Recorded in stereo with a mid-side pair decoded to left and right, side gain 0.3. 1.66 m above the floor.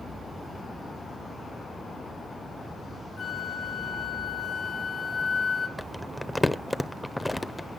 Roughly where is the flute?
Left.